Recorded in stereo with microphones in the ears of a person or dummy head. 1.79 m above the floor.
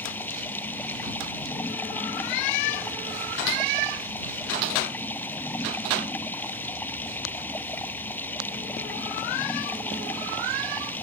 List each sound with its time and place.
0.0 s running water: 15° left (ahead or behind)